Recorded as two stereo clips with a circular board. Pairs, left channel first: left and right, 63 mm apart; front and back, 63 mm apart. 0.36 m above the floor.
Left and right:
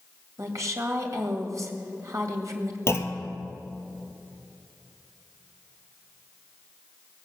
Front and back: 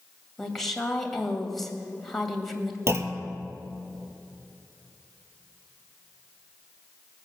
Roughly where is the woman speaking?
Right.